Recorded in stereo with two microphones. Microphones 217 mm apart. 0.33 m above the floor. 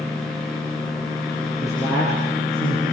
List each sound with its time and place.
1.6 s a man speaking: 10° left (ahead or behind), 8.5 m; by 2.8 s 20° left (ahead or behind), 7.5 m